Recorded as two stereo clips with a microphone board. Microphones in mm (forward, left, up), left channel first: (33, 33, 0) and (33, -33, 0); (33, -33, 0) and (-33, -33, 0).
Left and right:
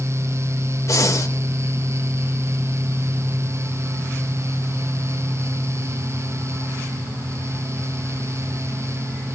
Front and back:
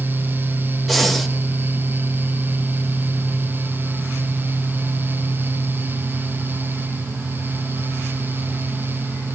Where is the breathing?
90° left, 1.0 m.